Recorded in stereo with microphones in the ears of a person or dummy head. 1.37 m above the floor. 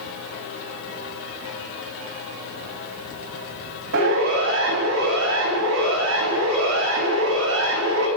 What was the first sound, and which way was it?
A siren, 65° right (ahead or behind).